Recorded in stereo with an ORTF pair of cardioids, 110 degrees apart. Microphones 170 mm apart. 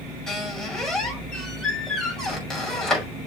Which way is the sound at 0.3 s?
5° left.